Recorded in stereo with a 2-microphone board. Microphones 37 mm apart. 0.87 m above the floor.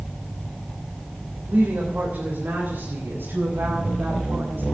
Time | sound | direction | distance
1.5 | a woman speaking | 55° right (ahead or behind) | 3.5 m